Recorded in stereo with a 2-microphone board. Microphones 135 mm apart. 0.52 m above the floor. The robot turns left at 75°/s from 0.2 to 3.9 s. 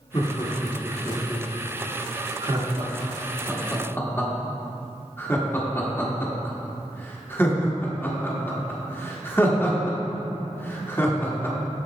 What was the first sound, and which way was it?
Laughter, 35° left (ahead or behind).